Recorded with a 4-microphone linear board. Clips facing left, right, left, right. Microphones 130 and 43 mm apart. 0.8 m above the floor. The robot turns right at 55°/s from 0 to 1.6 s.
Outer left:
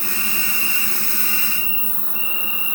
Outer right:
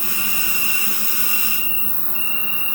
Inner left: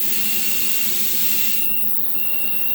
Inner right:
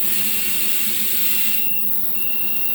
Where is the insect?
115° left, 7 m; by 2.8 s 155° right, 7 m.